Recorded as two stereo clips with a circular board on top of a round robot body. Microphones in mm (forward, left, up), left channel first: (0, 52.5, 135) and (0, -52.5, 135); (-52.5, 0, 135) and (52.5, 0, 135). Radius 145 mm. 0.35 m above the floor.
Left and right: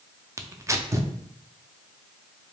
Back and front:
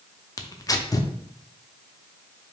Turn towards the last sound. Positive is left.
turn(degrees=-140)